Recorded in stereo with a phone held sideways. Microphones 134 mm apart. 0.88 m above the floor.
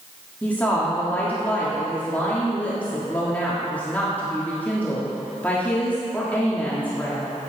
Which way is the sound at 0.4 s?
10° left (ahead or behind).